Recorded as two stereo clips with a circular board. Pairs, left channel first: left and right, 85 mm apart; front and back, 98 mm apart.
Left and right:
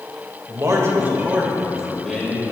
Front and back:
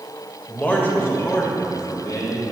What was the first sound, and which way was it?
A man speaking, 70° right.